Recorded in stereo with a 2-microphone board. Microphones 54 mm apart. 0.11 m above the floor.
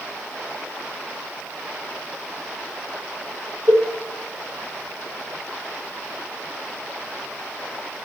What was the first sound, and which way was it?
A cowbell, 55° right (ahead or behind).